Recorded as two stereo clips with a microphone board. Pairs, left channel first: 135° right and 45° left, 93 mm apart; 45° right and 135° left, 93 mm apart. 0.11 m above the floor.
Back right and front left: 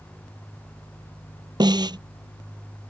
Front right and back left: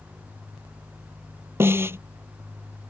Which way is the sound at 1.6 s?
75° left.